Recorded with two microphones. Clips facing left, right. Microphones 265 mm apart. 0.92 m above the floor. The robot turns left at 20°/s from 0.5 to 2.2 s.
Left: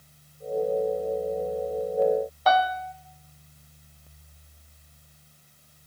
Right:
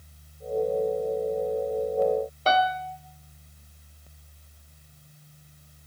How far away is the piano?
About 0.8 m.